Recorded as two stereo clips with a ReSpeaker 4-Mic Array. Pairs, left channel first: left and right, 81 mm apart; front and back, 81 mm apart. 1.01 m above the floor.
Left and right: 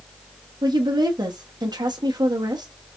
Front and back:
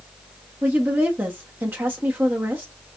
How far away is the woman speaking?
About 1.0 m.